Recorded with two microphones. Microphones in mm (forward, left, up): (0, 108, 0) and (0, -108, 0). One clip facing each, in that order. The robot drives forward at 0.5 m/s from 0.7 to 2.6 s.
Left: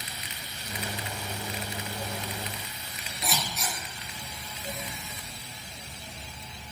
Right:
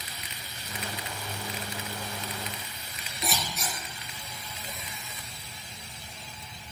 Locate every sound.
3.2 s scissors: centre (ahead or behind), 0.8 m